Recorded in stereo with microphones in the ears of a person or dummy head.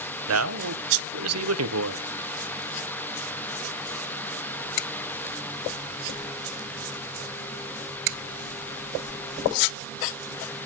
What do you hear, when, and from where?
0.3 s a man speaking: 85° right, 1.2 m